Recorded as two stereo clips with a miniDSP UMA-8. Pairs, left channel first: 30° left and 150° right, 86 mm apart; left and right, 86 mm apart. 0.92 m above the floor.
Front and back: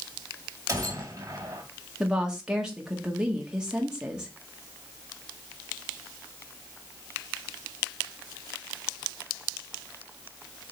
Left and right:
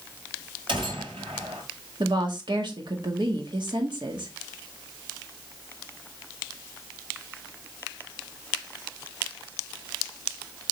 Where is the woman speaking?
70° right, 1.6 m.